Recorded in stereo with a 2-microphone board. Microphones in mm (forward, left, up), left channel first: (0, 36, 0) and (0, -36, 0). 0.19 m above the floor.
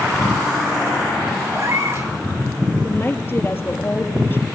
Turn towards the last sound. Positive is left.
turn(degrees=30)  # may be behind; listen again after turning